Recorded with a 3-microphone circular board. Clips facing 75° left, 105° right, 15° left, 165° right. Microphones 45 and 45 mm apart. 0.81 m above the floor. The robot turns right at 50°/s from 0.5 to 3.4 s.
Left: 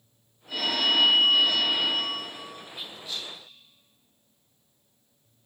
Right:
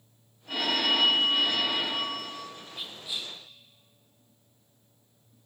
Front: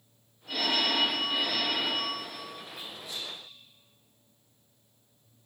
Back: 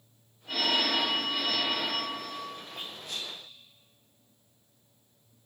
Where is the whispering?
165° left, 0.5 m; by 3.3 s 165° right, 0.5 m.